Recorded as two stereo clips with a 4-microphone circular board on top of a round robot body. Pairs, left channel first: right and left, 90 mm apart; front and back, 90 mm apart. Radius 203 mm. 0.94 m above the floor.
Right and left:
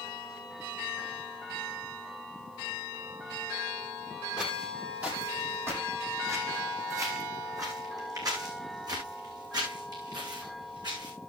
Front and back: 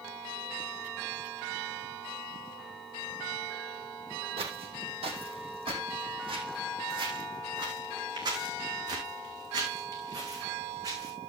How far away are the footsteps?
About 2.5 m.